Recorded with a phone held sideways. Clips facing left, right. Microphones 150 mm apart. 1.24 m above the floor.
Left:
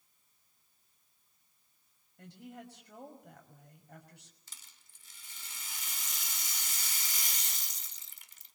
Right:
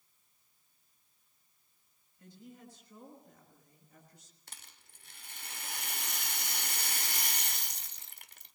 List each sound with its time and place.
2.2 s a woman speaking: 75° left (ahead or behind), 6 m
4.5 s a rattle: 65° right (ahead or behind), 1.5 m